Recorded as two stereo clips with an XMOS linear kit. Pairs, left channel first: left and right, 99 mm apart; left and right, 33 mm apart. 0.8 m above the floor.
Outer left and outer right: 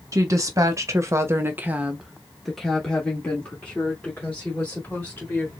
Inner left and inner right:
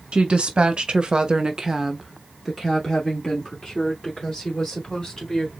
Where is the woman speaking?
35° right (ahead or behind), 1.3 m; by 5.5 s 20° left (ahead or behind), 3 m.